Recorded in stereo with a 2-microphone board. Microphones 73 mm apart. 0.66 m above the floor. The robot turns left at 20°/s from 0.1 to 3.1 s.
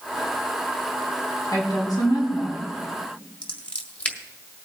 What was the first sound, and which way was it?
A woman speaking, 65° left (ahead or behind).